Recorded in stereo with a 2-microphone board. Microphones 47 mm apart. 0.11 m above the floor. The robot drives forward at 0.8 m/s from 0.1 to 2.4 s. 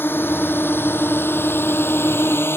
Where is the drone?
50° left (ahead or behind); by 2.6 s 60° left (ahead or behind).